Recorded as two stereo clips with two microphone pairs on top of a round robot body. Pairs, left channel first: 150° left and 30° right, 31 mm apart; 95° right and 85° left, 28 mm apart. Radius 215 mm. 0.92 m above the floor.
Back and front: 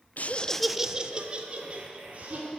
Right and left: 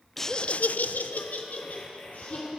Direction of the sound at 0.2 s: 175° right.